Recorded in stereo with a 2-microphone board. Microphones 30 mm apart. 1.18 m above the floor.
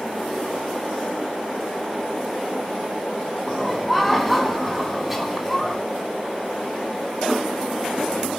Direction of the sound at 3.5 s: 5° right (ahead or behind).